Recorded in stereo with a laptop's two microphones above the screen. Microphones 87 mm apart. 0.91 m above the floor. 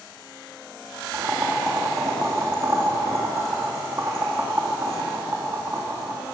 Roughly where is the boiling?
Right.